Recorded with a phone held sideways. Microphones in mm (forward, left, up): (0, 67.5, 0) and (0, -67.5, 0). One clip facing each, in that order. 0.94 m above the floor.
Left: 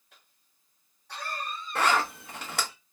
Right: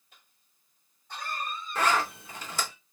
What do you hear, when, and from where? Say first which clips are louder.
0.1 s a cough: left 1 dB; 70° left (ahead or behind), 1.9 m
1.8 s a zipper: left 1 dB; 60° left (ahead or behind), 1.2 m